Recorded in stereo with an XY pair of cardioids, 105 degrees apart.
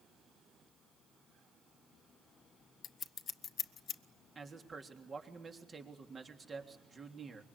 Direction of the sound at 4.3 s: 30° right.